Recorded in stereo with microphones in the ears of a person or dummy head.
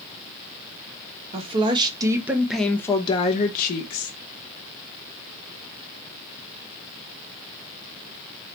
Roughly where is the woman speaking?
Right.